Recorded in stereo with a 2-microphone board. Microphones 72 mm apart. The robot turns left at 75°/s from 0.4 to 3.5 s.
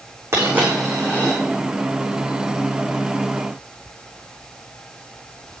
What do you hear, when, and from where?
0.3 s a dropped coin: 35° right (ahead or behind), 7 m; by 1.4 s 35° left (ahead or behind), 7 m